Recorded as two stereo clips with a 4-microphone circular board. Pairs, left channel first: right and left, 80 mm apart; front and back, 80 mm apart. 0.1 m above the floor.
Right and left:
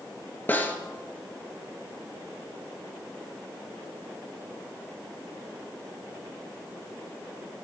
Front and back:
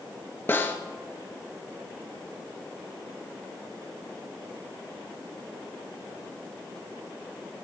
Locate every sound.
0.5 s a snare drum: 40° right, 2 m